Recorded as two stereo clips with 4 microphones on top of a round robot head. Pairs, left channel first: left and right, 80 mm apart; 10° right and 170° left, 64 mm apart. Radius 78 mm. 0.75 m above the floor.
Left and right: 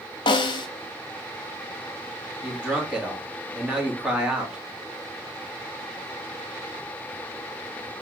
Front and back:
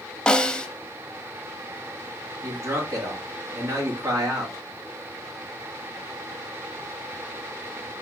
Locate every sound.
0.3 s a snare drum: 65° left, 0.6 m
2.4 s a man speaking: 165° right, 1.6 m